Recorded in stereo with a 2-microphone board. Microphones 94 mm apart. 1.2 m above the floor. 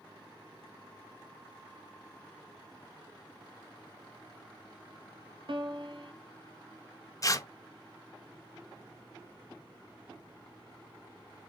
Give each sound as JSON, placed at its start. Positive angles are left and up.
{"t": 5.5, "sound": "a piano", "side_deg": -65, "distance_m": 0.8}
{"t": 7.2, "sound": "tearing paper", "side_deg": 35, "distance_m": 0.5}